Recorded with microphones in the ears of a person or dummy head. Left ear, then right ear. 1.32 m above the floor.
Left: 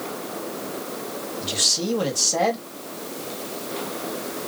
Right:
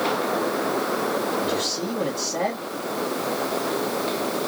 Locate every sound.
1.4 s a man speaking: 80° left, 1.9 m